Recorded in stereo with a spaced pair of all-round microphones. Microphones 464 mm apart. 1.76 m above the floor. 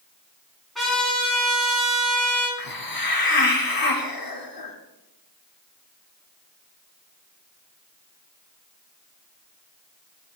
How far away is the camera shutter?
No camera shutter in this recording.